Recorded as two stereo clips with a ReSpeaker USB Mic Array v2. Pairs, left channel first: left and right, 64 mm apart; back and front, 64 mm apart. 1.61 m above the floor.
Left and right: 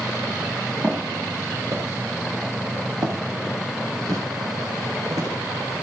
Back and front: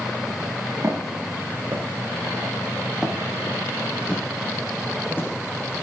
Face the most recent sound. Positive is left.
turn(degrees=-125)